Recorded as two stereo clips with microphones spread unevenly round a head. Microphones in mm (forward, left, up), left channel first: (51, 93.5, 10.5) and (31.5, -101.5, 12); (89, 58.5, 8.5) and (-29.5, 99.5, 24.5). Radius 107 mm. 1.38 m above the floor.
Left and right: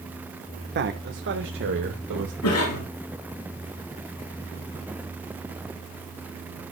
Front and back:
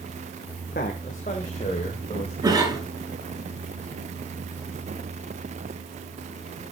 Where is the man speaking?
60° right, 1.2 m; by 2.3 s 85° right, 2.0 m.